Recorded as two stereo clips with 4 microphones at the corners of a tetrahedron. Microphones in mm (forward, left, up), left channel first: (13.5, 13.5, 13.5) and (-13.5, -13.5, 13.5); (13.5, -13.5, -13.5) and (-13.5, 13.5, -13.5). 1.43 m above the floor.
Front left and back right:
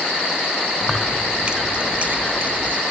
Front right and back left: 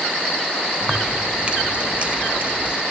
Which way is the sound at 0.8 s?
125° left.